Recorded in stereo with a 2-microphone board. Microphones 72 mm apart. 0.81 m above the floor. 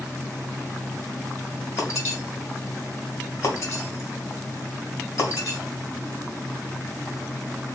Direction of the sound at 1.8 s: 40° left (ahead or behind).